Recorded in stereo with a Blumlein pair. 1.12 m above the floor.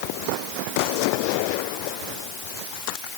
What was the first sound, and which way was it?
Only background noise.